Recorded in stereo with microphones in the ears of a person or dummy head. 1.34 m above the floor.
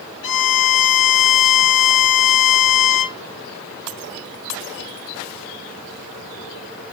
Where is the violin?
65° left (ahead or behind), 0.7 m.